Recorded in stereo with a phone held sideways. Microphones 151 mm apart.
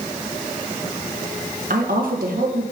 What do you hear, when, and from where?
1.7 s a woman speaking: 70° right (ahead or behind), 1.3 m